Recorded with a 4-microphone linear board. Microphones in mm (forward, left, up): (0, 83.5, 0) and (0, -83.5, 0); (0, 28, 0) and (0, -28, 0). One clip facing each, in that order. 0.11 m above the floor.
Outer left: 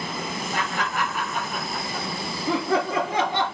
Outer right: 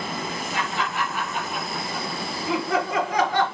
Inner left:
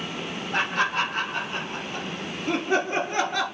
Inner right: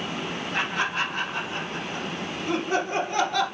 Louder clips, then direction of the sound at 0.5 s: Even, inner left 3 dB; 50° left (ahead or behind).